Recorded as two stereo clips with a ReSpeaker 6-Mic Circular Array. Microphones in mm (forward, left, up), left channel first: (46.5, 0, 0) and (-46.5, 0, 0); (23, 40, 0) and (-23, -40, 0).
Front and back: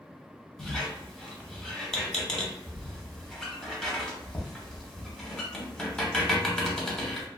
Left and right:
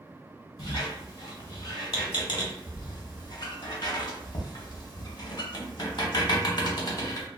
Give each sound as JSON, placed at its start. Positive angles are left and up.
{"t": 0.6, "sound": "a squeak", "azimuth_deg": 85, "distance_m": 0.7}